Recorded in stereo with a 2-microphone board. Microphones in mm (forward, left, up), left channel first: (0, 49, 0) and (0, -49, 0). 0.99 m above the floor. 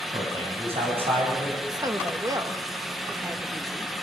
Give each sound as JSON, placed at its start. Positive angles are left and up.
{"t": 0.1, "sound": "a man speaking", "side_deg": -80, "distance_m": 7.5}
{"t": 1.7, "sound": "a woman speaking", "side_deg": -40, "distance_m": 1.4}